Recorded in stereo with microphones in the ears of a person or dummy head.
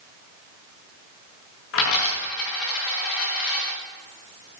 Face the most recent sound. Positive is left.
turn(degrees=75)  # may be behind; listen again after turning